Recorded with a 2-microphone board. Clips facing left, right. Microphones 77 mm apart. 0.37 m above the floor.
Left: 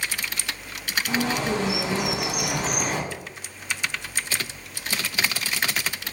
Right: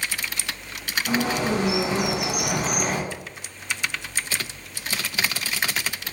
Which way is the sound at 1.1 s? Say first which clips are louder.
Right 2 dB; 50° right (ahead or behind).